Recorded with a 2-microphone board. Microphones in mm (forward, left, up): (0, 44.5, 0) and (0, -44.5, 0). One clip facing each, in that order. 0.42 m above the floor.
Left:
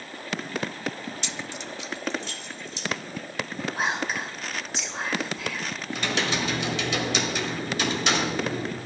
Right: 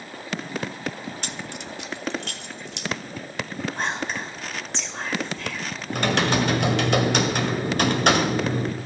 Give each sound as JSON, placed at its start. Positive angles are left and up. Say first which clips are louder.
{"t": 1.2, "sound": "keys jangling", "louder": "right 1 dB", "side_deg": -50, "distance_m": 0.6}
{"t": 3.8, "sound": "whispering", "louder": "left 2 dB", "side_deg": 5, "distance_m": 1.9}
{"t": 5.9, "sound": "typing on a keyboard", "louder": "right 6 dB", "side_deg": -55, "distance_m": 1.5}